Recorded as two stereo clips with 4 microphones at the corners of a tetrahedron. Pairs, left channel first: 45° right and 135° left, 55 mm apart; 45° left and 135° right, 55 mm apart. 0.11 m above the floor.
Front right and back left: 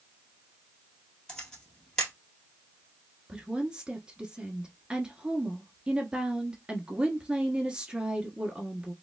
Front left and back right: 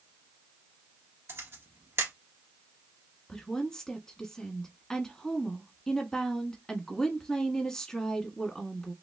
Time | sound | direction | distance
1.3 | a camera shutter | 120° right | 1.8 m
3.3 | a woman speaking | 105° left | 1.1 m